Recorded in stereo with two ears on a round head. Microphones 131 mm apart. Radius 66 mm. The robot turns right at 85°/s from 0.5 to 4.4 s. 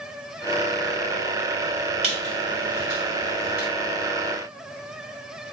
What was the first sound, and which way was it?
A squeak, 45° right (ahead or behind).